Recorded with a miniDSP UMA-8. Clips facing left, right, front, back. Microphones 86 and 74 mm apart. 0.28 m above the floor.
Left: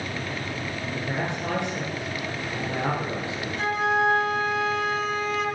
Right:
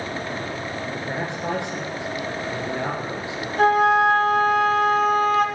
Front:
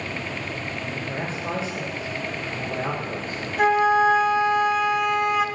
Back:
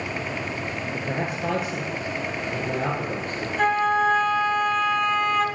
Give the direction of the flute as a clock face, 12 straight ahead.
3 o'clock.